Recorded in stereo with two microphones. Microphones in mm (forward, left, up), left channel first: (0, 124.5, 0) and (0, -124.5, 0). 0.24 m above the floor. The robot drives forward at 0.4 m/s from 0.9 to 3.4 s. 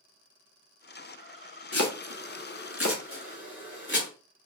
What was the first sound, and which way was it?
Chopping, 75° left (ahead or behind).